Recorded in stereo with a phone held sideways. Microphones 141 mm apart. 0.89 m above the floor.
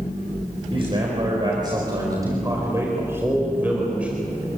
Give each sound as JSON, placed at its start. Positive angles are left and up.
{"t": 0.7, "sound": "a man speaking", "side_deg": -40, "distance_m": 4.5}